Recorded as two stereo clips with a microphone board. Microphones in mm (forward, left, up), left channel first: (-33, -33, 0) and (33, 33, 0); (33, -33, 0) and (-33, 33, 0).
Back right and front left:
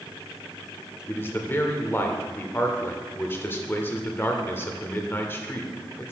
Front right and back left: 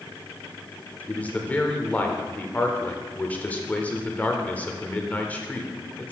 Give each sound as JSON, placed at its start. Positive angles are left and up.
{"t": 1.1, "sound": "a man speaking", "azimuth_deg": -100, "distance_m": 0.8}